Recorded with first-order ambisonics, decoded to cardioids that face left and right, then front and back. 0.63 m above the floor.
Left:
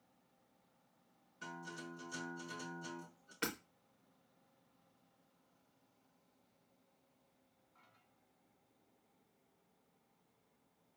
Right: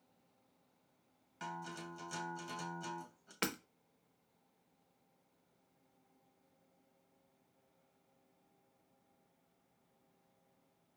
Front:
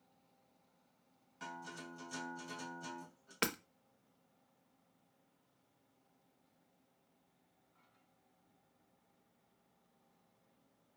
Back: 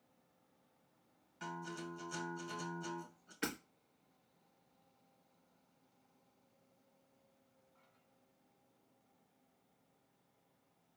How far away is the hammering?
About 0.7 m.